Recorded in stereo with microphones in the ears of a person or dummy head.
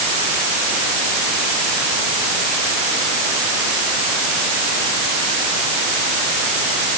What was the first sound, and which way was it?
Only background noise.